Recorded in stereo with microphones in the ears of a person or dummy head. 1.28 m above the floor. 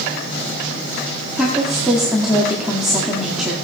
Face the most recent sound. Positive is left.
turn(degrees=0)  # may be behind; listen again after turning